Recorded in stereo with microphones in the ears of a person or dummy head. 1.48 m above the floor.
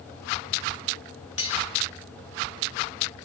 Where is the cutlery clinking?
35° left (ahead or behind), 2.5 m.